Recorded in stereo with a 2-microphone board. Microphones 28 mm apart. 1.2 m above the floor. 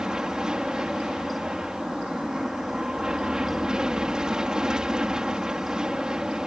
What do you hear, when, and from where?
0.0 s an aircraft: 25° right (ahead or behind)